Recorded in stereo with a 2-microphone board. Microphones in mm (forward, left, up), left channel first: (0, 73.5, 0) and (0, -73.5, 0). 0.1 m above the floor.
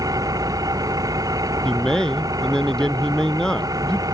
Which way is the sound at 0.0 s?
25° right (ahead or behind).